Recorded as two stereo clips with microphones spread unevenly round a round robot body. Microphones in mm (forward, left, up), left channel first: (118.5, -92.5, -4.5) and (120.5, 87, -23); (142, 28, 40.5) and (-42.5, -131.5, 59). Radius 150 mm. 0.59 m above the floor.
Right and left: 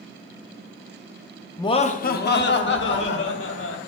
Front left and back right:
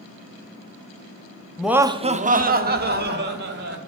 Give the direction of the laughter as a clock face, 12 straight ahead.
1 o'clock.